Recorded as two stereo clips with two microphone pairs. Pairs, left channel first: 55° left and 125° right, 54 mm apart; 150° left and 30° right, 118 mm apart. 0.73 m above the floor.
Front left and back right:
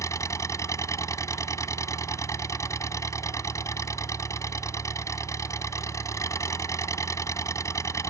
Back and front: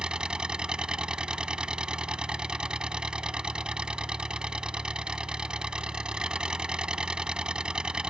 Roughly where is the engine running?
Ahead left.